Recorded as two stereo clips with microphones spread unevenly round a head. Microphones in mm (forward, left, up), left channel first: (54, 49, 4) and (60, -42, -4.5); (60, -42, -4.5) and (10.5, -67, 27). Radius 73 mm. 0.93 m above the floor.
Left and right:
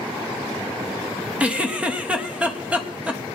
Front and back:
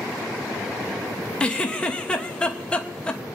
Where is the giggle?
15° right, 1.4 m.